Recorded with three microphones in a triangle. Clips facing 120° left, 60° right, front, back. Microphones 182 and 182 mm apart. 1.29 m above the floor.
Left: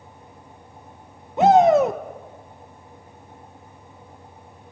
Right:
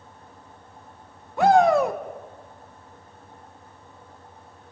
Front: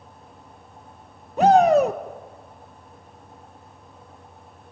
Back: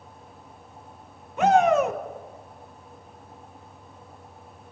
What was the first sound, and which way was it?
A shout, 50° left.